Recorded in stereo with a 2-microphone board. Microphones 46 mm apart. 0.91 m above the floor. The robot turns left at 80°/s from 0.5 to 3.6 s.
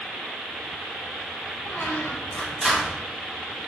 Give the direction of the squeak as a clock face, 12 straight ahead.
9 o'clock.